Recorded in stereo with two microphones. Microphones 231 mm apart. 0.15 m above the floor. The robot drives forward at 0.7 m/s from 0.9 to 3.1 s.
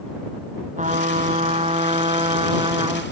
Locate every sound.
0.8 s a trumpet: 35° right (ahead or behind); by 3.0 s 20° right (ahead or behind)